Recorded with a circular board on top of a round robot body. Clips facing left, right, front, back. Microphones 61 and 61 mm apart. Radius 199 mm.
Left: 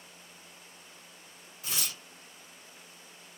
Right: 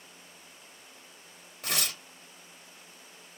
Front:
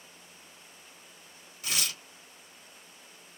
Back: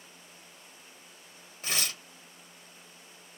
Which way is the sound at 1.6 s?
125° right.